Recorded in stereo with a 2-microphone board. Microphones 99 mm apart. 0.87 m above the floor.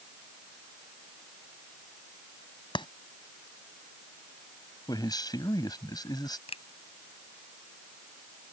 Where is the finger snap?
70° left (ahead or behind).